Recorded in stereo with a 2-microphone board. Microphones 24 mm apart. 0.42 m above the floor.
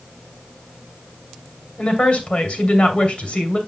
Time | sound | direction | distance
1.8 | a woman speaking | 50° left (ahead or behind) | 2.5 m